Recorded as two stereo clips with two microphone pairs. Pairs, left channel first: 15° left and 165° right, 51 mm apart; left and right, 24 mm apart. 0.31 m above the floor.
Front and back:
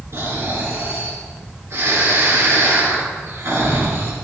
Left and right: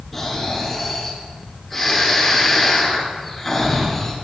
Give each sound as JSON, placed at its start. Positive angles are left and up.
{"t": 0.1, "sound": "snoring", "azimuth_deg": 175, "distance_m": 2.5}